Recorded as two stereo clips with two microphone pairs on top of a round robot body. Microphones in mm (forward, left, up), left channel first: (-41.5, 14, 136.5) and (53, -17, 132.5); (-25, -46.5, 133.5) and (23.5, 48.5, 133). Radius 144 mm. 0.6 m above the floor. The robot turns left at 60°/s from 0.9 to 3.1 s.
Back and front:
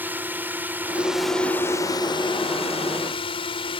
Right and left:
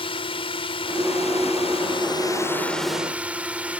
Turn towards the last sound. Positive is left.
turn(degrees=140)